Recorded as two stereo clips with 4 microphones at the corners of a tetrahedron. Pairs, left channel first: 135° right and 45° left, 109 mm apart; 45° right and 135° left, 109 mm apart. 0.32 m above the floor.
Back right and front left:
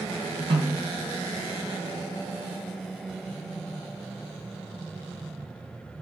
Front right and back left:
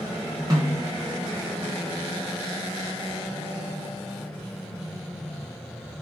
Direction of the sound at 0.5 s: 80° left.